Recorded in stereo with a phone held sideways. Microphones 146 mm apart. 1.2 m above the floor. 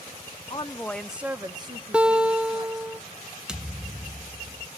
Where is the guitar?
5° right (ahead or behind), 0.6 m.